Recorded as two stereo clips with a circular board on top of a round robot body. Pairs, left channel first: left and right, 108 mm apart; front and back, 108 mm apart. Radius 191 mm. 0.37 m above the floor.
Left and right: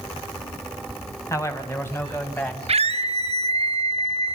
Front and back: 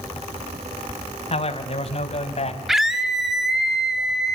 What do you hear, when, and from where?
1.3 s a man speaking: 25° left, 3.5 m; by 2.6 s 15° left, 3.5 m
2.7 s a scream: 95° right, 3 m